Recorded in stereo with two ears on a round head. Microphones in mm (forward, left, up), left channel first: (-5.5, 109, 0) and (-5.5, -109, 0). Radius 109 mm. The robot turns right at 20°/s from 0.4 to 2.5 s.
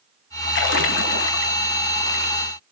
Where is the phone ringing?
No phone ringing in this recording.